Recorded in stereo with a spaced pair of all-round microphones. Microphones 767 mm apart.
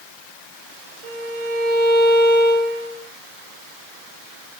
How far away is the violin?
About 6.5 m.